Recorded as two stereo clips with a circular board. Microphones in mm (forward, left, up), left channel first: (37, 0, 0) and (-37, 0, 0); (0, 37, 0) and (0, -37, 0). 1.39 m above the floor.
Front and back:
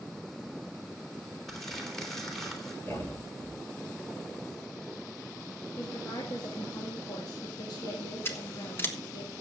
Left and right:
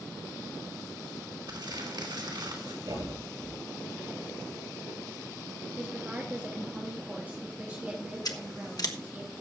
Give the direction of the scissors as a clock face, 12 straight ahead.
10 o'clock.